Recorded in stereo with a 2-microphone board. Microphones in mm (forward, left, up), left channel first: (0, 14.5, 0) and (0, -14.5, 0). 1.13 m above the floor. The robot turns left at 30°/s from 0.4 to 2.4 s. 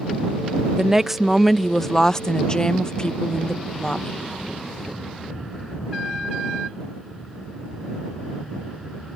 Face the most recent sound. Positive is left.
turn(degrees=150)